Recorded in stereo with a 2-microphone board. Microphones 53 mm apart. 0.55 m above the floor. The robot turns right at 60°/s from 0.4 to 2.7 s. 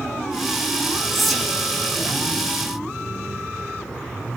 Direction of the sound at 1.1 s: 5° left (ahead or behind).